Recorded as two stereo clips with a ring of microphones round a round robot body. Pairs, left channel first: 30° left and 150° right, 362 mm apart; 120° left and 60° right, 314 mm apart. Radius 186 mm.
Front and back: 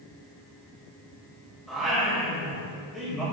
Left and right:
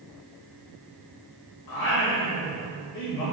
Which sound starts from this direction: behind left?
Singing, at 1.7 s.